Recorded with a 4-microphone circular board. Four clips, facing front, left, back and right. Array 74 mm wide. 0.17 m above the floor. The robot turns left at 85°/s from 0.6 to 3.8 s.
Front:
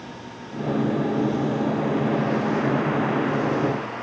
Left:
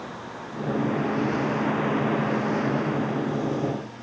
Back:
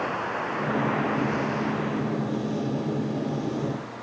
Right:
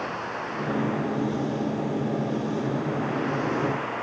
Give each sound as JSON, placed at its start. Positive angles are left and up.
{"t": 0.0, "sound": "running water", "azimuth_deg": -155}